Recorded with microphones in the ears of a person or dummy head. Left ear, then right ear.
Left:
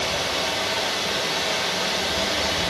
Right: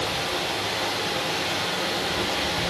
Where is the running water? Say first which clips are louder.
Left 2 dB; 20° right (ahead or behind), 4.5 m.